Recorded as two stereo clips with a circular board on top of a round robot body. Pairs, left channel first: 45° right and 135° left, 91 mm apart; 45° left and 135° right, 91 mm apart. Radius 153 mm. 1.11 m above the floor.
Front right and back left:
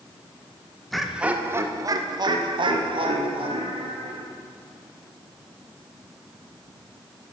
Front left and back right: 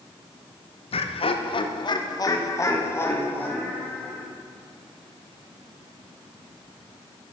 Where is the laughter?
45° left, 1.1 m; by 4.3 s 120° left, 2.5 m.